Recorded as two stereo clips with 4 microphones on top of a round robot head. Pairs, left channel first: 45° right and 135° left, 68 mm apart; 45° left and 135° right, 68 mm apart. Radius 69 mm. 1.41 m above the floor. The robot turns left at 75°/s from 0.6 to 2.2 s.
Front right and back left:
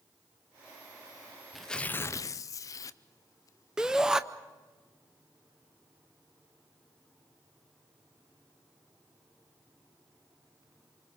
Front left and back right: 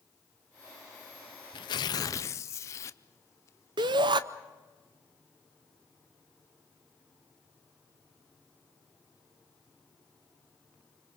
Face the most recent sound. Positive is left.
turn(degrees=-145)